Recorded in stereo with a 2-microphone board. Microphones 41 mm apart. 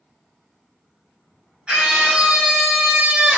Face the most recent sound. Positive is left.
turn(degrees=-40)  # may be behind; listen again after turning